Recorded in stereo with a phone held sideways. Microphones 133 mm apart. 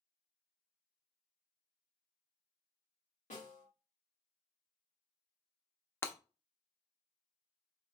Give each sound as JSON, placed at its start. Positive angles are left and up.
{"t": 3.3, "sound": "a snare drum", "side_deg": 70, "distance_m": 1.8}
{"t": 6.0, "sound": "breaking glass", "side_deg": 20, "distance_m": 0.5}